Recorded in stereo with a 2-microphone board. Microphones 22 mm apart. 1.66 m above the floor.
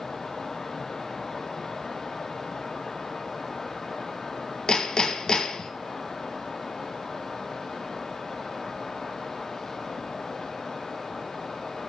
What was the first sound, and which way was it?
Hammering, 40° left (ahead or behind).